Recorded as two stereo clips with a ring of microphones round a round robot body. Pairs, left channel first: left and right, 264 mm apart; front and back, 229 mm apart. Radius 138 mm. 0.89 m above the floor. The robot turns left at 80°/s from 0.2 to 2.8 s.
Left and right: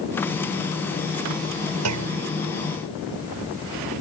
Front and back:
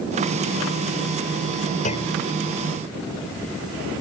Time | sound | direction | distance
1.9 | a clunk | 65° right | ?